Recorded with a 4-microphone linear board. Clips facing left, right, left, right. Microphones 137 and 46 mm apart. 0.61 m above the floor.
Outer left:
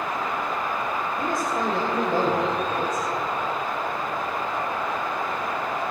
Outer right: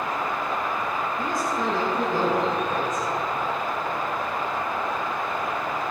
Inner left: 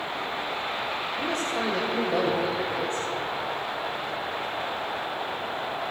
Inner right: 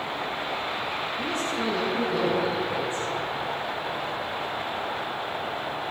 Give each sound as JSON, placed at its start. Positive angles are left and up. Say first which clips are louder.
{"t": 1.2, "sound": "a man speaking", "louder": "outer left 2 dB, inner left 1 dB", "side_deg": 60, "distance_m": 2.5}